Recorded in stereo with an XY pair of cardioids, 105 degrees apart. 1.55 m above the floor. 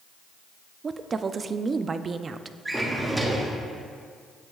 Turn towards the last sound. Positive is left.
turn(degrees=-20)